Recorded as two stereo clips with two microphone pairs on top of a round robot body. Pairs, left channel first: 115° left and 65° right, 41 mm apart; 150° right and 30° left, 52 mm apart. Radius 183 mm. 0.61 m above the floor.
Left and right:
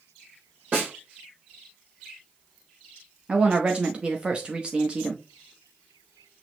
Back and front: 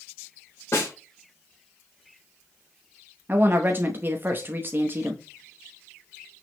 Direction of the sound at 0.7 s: 110° right.